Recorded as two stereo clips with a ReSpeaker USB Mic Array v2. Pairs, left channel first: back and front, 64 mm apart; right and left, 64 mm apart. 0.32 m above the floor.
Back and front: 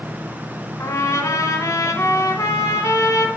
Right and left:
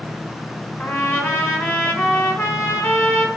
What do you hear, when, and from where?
0.8 s a trumpet: 145° right, 1.5 m